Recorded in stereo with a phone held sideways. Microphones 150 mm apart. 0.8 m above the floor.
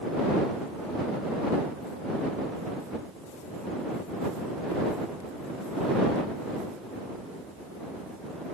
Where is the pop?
I don't hear a pop.